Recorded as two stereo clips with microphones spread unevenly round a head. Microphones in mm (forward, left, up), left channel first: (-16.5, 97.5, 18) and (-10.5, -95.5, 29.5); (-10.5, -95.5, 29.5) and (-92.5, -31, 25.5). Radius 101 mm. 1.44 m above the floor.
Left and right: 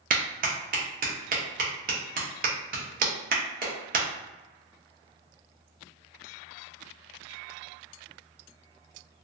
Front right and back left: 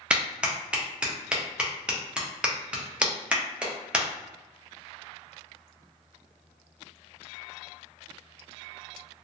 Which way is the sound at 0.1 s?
140° right.